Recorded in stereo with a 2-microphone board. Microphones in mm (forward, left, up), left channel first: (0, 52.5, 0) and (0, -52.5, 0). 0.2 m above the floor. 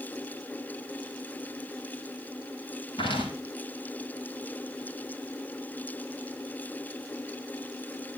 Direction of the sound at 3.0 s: 55° left (ahead or behind).